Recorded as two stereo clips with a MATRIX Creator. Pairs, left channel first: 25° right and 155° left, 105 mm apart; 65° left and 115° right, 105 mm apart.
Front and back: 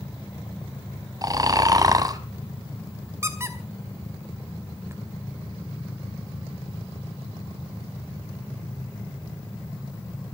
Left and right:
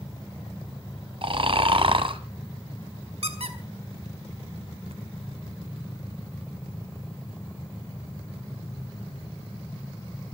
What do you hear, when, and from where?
1.2 s snoring: 145° right, 1.4 m
3.2 s a squeak: 135° right, 2 m